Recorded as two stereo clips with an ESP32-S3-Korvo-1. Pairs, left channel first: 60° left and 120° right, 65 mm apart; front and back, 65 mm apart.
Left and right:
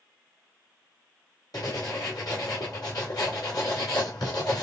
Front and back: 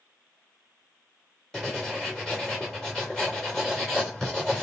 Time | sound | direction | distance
1.5 | writing | 80° left | 2.5 m